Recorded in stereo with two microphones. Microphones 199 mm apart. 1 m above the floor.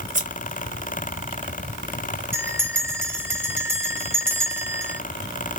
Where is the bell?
10° right (ahead or behind), 1.3 m.